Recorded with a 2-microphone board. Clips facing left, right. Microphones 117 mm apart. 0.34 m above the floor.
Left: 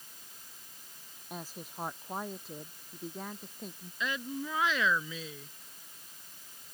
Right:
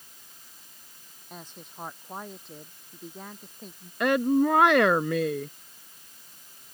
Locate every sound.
1.3 s a woman speaking: 5° left (ahead or behind); by 3.9 s centre (ahead or behind)
4.0 s a woman speaking: 70° right (ahead or behind)